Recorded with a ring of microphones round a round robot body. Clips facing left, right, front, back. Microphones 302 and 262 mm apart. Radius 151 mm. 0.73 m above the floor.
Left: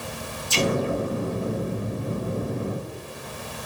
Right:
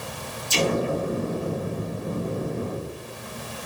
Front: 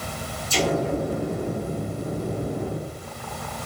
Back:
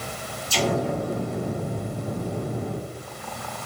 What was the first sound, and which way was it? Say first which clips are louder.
An explosion: even, front 1 dB; 75° right.